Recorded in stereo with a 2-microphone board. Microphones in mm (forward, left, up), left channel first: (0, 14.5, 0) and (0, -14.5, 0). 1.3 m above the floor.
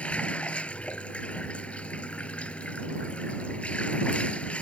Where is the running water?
50° left (ahead or behind).